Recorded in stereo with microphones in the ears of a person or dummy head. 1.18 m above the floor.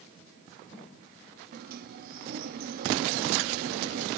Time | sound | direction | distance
1.5 | a sliding door | 45° right (ahead or behind) | 0.8 m